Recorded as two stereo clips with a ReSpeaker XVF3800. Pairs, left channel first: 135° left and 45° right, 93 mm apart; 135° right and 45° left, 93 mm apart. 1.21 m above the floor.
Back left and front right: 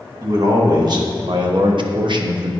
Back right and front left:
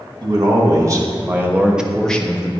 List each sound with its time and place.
0.2 s a man speaking: straight ahead, 1.8 m; by 2.5 s 80° right, 0.8 m